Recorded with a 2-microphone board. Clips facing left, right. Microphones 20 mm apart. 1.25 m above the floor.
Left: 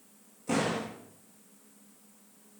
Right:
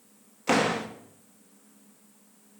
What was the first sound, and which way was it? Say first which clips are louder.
A door slam: right 6 dB; 65° right (ahead or behind).